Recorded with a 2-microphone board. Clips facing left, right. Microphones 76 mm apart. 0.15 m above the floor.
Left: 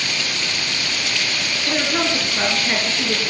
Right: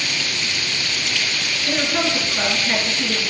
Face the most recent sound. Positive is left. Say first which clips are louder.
# even
turn(degrees=15)  # may be behind; listen again after turning